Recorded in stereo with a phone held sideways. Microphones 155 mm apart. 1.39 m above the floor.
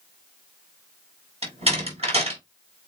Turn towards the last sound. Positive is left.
turn(degrees=-40)  # may be behind; listen again after turning